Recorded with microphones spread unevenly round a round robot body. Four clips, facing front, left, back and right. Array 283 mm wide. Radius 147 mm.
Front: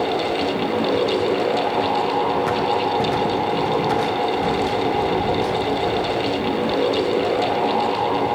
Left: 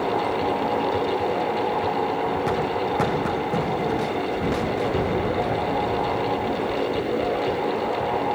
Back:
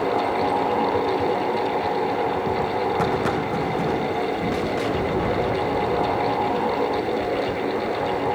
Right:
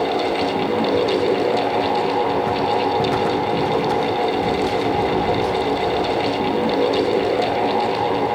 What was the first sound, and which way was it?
Only background noise.